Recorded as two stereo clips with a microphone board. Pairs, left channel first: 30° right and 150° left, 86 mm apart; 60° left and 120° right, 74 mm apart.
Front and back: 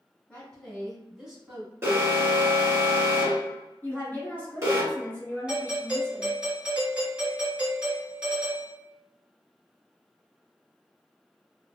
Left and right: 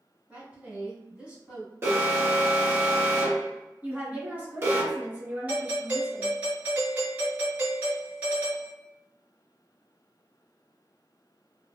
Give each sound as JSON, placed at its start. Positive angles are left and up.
{"t": 0.3, "sound": "a woman speaking", "azimuth_deg": -80, "distance_m": 1.6}
{"t": 1.8, "sound": "an alarm", "azimuth_deg": -160, "distance_m": 1.4}
{"t": 3.8, "sound": "a woman speaking", "azimuth_deg": -80, "distance_m": 1.7}
{"t": 5.5, "sound": "a doorbell", "azimuth_deg": -150, "distance_m": 1.6}